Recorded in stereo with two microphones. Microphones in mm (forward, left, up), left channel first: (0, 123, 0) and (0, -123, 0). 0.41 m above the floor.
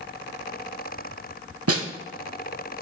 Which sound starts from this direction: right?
A snare drum, at 1.7 s.